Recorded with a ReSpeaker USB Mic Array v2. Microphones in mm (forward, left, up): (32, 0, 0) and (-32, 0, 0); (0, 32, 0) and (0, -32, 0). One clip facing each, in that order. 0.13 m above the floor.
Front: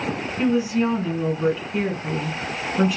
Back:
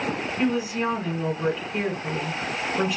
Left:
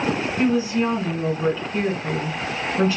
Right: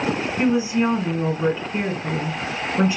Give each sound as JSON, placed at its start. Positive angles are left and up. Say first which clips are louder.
{"t": 0.4, "sound": "a woman speaking", "louder": "front 5 dB, right 1 dB", "azimuth_deg": -90, "distance_m": 1.2}